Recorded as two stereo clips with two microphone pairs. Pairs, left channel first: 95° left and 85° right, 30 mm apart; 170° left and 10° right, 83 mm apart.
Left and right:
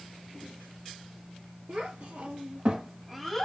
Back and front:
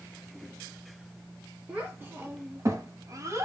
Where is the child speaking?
80° right, 1.5 m; by 3.5 s 25° left, 0.9 m.